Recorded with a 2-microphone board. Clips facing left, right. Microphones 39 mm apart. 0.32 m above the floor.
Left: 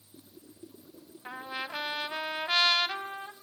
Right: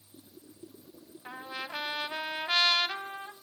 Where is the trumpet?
10° left (ahead or behind), 0.9 m.